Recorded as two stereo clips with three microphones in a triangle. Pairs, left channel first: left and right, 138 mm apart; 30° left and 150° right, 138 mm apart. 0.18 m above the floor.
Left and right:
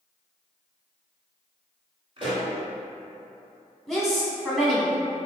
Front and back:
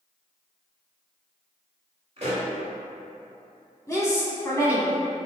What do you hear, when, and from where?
2.2 s a pop: 125° right, 1.9 m
3.9 s a woman speaking: straight ahead, 1.1 m